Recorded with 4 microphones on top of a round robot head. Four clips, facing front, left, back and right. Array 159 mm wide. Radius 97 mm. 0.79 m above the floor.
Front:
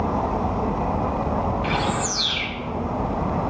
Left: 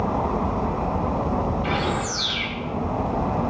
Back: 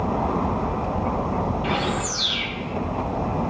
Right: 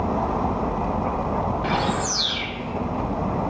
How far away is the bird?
About 1.8 m.